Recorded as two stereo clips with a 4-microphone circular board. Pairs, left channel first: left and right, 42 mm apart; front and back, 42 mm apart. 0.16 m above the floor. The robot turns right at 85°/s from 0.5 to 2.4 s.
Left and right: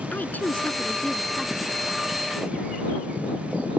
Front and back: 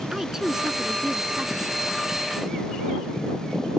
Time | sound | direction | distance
0.1 | a woman speaking | 105° left | ?